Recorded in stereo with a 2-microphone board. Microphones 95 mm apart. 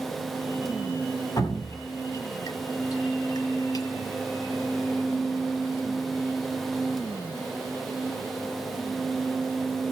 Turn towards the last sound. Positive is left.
turn(degrees=40)  # may be behind; listen again after turning